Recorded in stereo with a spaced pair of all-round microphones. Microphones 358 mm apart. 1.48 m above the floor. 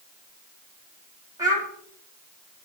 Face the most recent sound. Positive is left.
turn(degrees=-10)  # may be behind; listen again after turning